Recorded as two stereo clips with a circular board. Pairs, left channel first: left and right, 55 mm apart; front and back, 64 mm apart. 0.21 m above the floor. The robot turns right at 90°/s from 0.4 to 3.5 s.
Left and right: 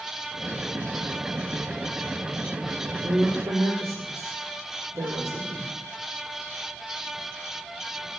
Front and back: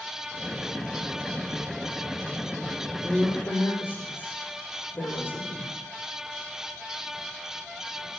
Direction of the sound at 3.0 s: 100° right.